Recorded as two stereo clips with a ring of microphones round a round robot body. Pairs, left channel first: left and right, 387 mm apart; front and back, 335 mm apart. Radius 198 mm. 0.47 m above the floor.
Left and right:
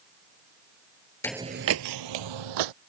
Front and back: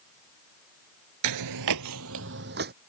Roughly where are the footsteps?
Behind.